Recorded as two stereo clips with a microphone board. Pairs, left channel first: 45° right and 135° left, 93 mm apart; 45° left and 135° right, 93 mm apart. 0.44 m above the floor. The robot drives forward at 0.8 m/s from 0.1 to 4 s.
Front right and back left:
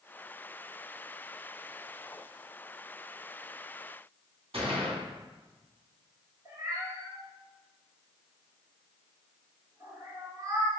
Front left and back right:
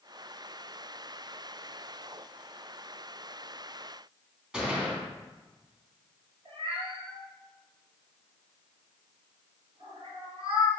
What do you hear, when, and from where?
4.5 s a gunshot: 145° left, 2 m
6.5 s a cat meowing: 170° right, 2.5 m